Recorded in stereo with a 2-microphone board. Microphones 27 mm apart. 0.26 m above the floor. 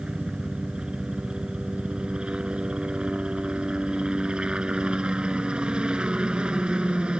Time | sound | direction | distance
0.0 | a helicopter | 35° right (ahead or behind) | ?